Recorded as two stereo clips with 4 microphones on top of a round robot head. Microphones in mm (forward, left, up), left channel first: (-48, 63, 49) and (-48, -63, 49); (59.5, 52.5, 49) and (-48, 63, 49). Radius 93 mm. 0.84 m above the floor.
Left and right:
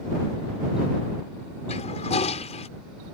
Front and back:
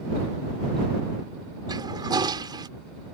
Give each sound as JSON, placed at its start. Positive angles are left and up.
{"t": 1.7, "sound": "a toilet flushing", "azimuth_deg": 125}